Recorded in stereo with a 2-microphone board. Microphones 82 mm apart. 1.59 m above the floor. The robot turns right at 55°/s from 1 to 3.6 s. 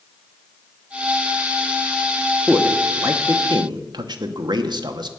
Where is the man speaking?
5° right (ahead or behind), 1.0 m; by 5.1 s 60° right (ahead or behind), 1.0 m.